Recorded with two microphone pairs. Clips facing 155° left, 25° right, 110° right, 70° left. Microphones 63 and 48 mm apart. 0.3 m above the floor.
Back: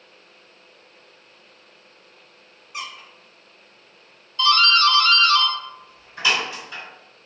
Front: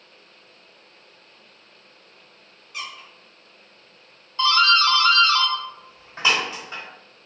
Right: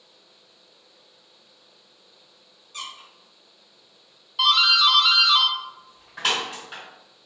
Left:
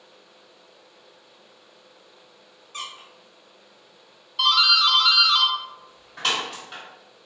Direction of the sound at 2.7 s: 100° left.